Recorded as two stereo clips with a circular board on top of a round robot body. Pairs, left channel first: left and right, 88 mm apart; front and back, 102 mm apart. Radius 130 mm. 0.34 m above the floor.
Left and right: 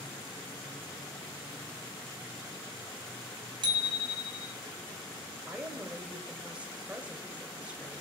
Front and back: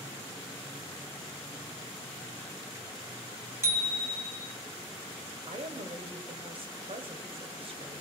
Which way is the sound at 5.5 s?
165° right.